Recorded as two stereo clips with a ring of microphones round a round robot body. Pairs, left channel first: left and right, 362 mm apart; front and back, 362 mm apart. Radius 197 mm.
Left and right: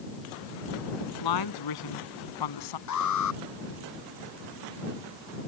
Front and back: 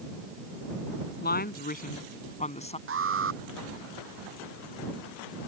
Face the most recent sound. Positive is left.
turn(degrees=125)